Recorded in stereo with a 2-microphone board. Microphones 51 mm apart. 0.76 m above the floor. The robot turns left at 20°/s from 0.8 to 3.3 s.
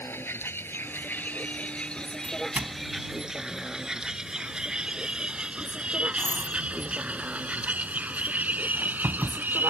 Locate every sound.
0.0 s a vehicle: 50° left (ahead or behind); by 9.7 s 40° right (ahead or behind)
2.2 s a doorbell: 30° right (ahead or behind); by 9.4 s 55° right (ahead or behind)